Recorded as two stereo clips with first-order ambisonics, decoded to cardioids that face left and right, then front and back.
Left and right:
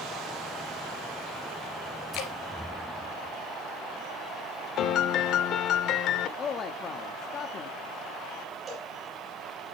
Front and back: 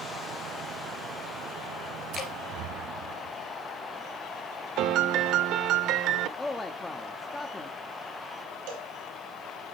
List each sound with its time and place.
2.1 s dripping: 65° left, 2.5 m
4.8 s a piano: 135° left, 0.6 m
6.4 s a man speaking: 70° left, 0.7 m
8.7 s a cowbell: 160° right, 7 m